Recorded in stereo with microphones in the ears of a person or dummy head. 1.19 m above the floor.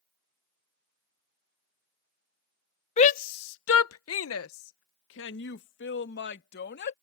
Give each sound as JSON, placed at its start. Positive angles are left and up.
{"t": 3.0, "sound": "a shout", "side_deg": 30}